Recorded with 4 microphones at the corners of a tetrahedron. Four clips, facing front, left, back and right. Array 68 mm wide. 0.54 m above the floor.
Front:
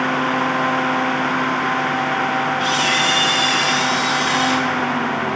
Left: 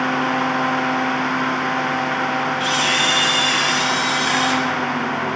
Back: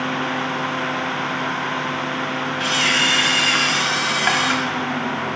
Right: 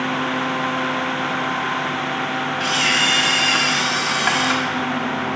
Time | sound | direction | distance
2.6 | a camera shutter | 145° right | 1.7 m